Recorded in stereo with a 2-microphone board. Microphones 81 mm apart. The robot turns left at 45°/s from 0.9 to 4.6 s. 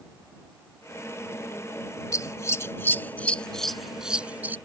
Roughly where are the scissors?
Left.